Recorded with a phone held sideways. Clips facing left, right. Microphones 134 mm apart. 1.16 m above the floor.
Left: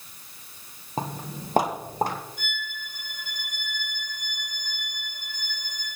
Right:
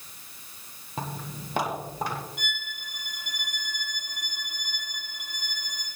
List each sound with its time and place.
1.0 s footsteps: 35° left (ahead or behind), 1.7 m; by 2.2 s 45° left (ahead or behind), 3.5 m
2.4 s a violin: 75° right (ahead or behind), 5 m